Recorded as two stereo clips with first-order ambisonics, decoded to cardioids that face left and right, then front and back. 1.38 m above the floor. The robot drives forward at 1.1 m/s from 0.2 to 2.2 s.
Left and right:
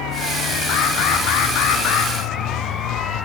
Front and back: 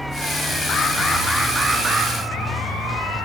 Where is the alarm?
55° left, 1.6 m; by 2.1 s 125° left, 1.6 m.